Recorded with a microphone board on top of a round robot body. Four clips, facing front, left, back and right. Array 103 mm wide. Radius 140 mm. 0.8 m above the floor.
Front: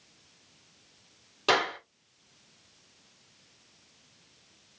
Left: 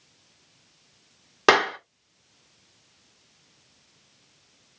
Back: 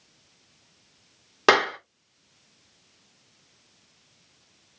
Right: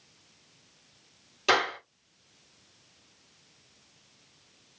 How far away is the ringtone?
No ringtone in this recording.